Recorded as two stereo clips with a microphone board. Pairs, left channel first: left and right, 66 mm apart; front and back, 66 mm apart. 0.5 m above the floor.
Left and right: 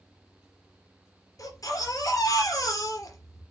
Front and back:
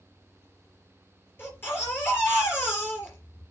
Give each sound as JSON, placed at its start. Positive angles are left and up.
{"t": 1.4, "sound": "a baby crying", "azimuth_deg": 55, "distance_m": 4.0}